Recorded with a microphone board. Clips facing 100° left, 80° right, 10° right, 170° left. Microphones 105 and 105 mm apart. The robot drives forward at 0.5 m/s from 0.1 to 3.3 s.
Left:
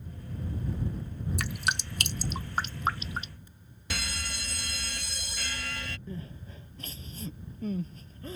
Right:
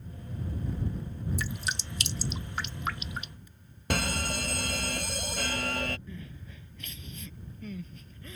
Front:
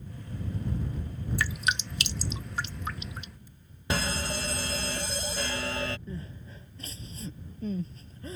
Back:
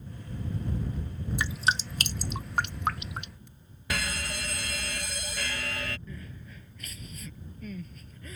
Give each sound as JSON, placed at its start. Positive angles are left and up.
{"t": 1.4, "sound": "dripping", "azimuth_deg": 100}
{"t": 3.9, "sound": "a fire alarm", "azimuth_deg": -65}
{"t": 6.1, "sound": "crying", "azimuth_deg": 45}